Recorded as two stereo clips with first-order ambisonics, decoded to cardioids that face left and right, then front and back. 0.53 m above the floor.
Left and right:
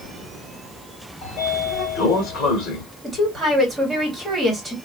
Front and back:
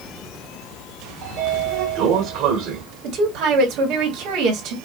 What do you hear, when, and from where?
1.2 s a sliding door: 135° left, 1.7 m
3.0 s a woman speaking: straight behind, 1.7 m